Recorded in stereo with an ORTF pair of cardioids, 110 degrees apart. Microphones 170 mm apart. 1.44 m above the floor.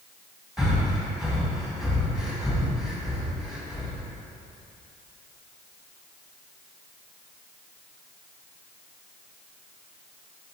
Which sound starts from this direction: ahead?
Breathing, at 0.6 s.